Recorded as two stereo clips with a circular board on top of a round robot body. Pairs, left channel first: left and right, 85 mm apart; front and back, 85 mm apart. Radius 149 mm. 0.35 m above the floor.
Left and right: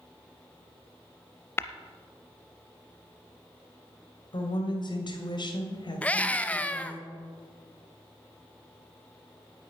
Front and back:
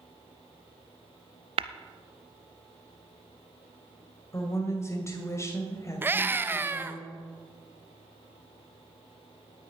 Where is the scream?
145° left, 0.9 m.